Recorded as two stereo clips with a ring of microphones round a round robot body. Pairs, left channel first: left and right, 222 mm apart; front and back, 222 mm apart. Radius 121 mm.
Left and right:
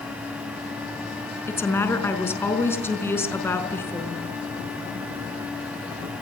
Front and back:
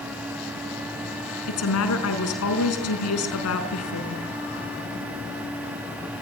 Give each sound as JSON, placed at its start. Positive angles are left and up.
{"t": 1.5, "sound": "a woman speaking", "azimuth_deg": 10, "distance_m": 5.0}